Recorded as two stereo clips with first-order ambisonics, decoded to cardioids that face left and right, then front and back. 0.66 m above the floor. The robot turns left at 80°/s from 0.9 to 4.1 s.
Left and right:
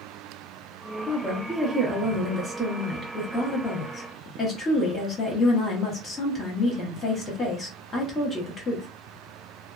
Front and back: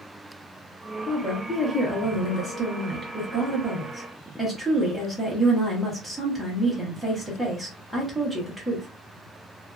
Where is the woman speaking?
30° right, 0.9 m; by 8.9 s 85° left, 0.9 m.